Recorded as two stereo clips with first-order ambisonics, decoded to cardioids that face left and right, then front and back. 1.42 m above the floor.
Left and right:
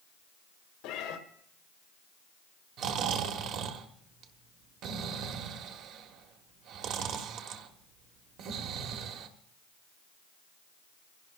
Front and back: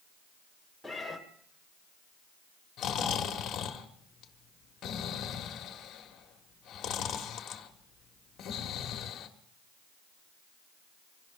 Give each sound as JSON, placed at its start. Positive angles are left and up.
{"t": 0.8, "sound": "a cat meowing", "azimuth_deg": 90, "distance_m": 1.8}
{"t": 2.8, "sound": "snoring", "azimuth_deg": -55, "distance_m": 1.5}